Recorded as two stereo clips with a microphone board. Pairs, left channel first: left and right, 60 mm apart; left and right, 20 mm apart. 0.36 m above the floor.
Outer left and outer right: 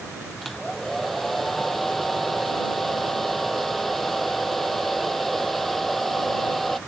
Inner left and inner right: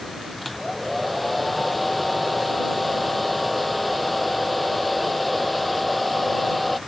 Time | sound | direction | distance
0.4 | a hair dryer | 5° left (ahead or behind) | ?